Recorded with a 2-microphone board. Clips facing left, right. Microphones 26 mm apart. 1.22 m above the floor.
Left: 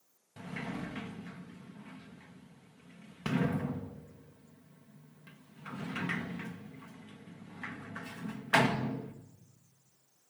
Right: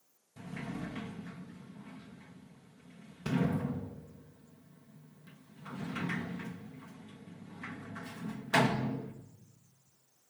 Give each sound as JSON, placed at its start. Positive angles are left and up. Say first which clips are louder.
{"t": 0.4, "sound": "a sliding door", "louder": "left 1 dB", "side_deg": 85, "distance_m": 1.3}